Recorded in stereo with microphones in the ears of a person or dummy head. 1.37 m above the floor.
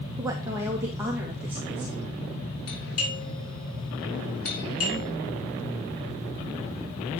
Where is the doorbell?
80° left, 4.5 m.